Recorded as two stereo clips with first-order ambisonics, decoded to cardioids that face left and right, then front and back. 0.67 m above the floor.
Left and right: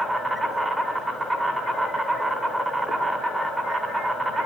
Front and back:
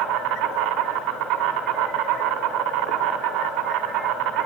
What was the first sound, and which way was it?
An insect, 170° right.